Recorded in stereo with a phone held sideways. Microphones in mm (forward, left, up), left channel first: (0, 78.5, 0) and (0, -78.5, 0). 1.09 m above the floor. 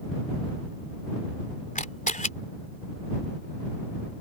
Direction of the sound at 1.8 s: 55° left (ahead or behind).